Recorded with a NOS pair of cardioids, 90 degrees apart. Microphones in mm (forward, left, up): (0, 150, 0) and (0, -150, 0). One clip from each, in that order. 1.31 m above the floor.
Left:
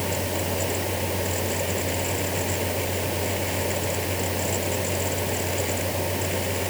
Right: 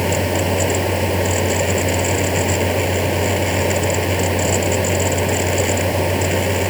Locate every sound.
0.0 s a fan: 60° right